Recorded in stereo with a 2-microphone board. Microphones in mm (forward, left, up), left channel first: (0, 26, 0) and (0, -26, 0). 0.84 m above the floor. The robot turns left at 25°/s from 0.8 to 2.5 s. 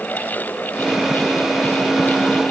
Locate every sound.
Only background noise.